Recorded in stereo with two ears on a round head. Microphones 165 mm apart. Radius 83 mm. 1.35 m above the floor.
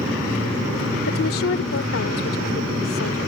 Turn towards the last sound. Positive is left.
turn(degrees=85)